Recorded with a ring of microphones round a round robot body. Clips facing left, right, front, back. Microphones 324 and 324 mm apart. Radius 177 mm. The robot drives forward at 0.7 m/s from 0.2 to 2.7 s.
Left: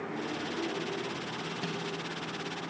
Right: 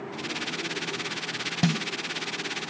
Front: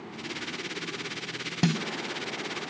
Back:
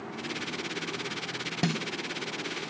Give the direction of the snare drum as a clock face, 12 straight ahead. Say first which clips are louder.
Right 12 dB, front 3 dB; 2 o'clock.